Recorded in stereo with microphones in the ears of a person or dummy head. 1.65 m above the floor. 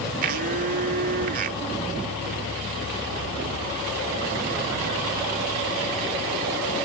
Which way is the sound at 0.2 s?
50° right (ahead or behind).